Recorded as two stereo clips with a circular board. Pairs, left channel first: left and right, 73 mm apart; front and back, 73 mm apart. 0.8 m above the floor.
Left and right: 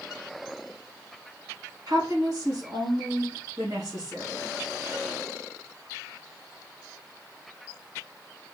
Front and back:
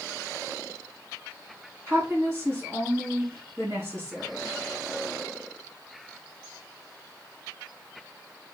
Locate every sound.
1.9 s a woman speaking: 125° right, 3.5 m